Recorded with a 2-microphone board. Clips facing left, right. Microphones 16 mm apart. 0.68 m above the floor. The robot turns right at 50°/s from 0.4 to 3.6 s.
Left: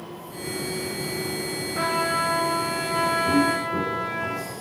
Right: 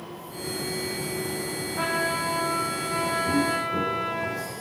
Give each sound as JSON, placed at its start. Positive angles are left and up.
{"t": 1.8, "sound": "a trumpet", "azimuth_deg": 105, "distance_m": 2.5}
{"t": 3.3, "sound": "footsteps", "side_deg": 40, "distance_m": 1.5}